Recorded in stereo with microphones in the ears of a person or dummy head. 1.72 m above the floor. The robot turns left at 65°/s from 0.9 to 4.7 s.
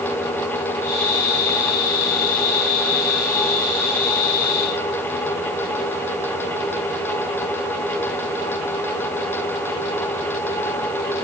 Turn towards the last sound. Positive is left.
No sound to turn to.